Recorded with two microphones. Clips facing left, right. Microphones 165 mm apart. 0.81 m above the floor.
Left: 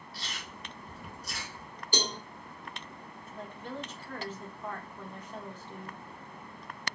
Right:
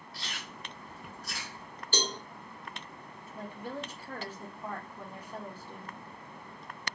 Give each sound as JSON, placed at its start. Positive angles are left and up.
{"t": 0.1, "sound": "chewing", "side_deg": 5, "distance_m": 1.6}
{"t": 1.9, "sound": "a cowbell", "side_deg": 15, "distance_m": 0.6}
{"t": 3.4, "sound": "a woman speaking", "side_deg": -10, "distance_m": 0.7}